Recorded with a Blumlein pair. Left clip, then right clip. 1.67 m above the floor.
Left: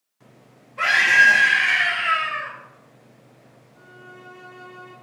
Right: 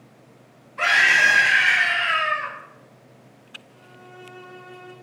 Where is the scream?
20° left, 2 m; by 2.5 s 10° right, 1.7 m.